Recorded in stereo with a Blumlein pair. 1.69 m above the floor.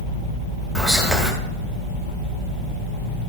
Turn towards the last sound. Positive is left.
turn(degrees=-5)